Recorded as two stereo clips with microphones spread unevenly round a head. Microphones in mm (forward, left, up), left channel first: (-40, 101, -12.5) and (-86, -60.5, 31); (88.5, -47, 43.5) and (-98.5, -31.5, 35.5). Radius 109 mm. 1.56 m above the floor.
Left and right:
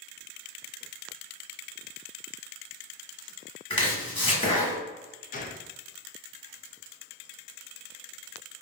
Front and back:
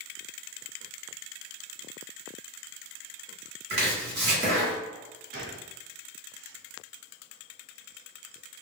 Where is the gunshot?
125° left, 0.5 m.